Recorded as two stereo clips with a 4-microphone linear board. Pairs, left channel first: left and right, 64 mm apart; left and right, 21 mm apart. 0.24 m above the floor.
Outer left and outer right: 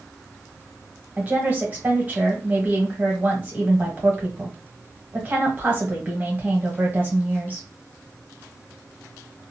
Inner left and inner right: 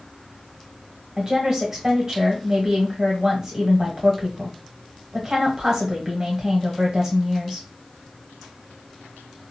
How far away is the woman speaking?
About 1.4 m.